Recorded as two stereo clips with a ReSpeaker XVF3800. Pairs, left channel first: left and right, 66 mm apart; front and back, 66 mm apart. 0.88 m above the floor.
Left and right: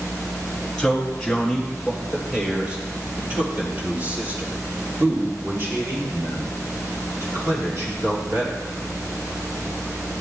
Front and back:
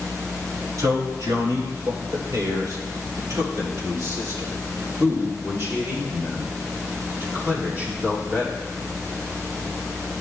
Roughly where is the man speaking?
Behind.